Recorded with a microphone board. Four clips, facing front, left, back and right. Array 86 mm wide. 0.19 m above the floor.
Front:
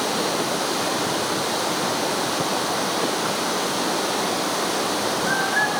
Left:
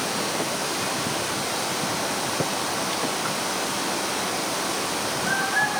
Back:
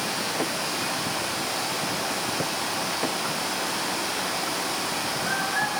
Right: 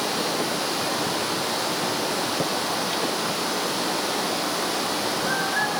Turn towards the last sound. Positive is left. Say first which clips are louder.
# right 1 dB, front 5 dB
turn(degrees=-15)